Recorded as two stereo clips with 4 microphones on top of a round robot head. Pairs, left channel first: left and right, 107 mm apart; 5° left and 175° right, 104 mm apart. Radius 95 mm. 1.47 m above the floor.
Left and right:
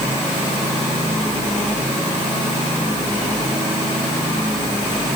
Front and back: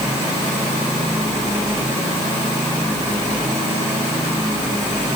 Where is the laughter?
I don't hear laughter.